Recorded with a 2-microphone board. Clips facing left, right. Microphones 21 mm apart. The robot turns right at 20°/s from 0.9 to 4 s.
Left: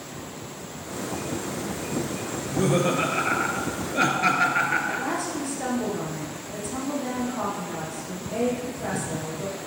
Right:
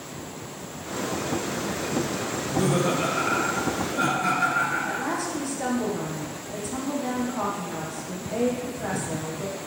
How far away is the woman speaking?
About 3.5 m.